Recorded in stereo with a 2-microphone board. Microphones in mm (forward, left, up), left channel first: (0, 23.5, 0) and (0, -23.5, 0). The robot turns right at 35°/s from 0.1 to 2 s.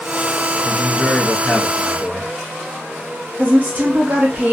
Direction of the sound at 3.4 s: 40° right (ahead or behind).